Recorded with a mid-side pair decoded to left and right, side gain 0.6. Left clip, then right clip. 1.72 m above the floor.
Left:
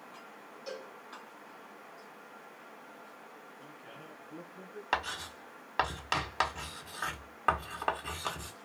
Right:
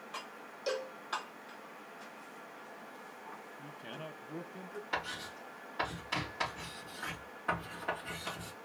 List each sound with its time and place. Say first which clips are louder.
0.7 s a cowbell: right 7 dB; 50° right, 0.7 m
3.6 s a man speaking: right 5 dB; 55° right, 0.8 m
4.9 s writing: left 5 dB; 70° left, 1.6 m